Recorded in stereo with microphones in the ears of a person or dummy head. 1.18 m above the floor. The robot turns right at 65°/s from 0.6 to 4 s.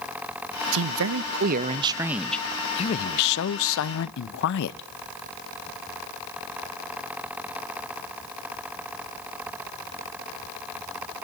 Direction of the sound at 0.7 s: 100° right.